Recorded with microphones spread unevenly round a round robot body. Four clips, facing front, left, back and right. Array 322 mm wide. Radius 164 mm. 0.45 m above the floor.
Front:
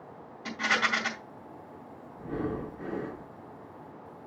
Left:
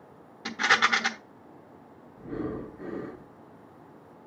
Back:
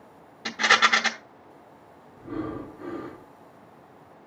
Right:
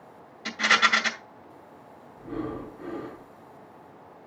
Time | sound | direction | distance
0.5 | a rattle | 125° left | 1.2 m
2.2 | breathing | 30° left | 1.6 m